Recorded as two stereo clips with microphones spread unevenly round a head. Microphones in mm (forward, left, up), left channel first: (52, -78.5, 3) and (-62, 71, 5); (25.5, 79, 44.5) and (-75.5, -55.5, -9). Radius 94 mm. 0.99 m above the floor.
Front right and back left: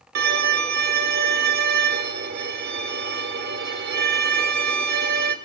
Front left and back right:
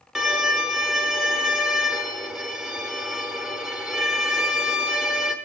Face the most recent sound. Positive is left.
turn(degrees=130)